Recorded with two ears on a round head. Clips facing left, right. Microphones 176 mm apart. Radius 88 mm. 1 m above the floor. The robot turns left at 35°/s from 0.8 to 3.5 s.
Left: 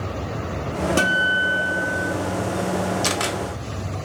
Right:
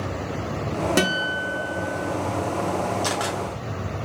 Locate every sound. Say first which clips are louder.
1.0 s a guitar: even; 15° right, 1.2 m; by 2.1 s 55° right, 1.2 m
3.0 s a camera shutter: left 1 dB; 30° left (ahead or behind), 1.0 m; by 3.4 s 35° left (ahead or behind), 1.0 m